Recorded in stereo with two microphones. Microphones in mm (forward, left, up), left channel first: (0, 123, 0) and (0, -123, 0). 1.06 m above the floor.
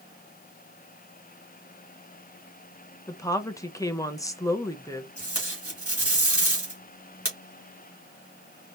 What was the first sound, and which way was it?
A woman speaking, 15° left (ahead or behind).